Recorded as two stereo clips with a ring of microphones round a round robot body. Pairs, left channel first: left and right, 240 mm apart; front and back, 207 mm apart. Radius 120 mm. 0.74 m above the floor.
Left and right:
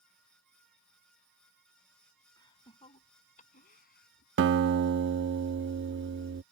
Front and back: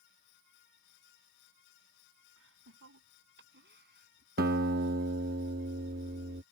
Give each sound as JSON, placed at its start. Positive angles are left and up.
{"t": 2.4, "sound": "laughter", "azimuth_deg": 165}
{"t": 4.4, "sound": "a guitar", "azimuth_deg": -130}